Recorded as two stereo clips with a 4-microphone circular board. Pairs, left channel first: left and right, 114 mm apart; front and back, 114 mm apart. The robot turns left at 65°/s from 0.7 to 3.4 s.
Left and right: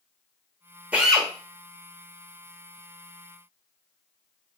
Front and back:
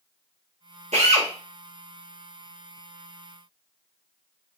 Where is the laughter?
I don't hear laughter.